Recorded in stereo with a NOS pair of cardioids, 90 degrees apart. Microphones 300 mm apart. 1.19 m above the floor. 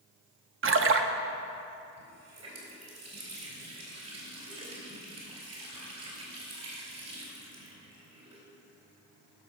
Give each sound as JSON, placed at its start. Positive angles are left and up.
{"t": 0.6, "sound": "a splash", "azimuth_deg": -45, "distance_m": 0.8}
{"t": 2.0, "sound": "a running tap", "azimuth_deg": -55, "distance_m": 4.0}